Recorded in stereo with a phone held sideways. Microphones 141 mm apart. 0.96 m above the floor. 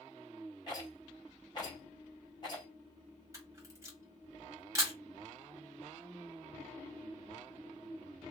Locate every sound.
0.7 s a rattle: 30° left (ahead or behind), 1.8 m
3.3 s a camera shutter: 25° right (ahead or behind), 1.5 m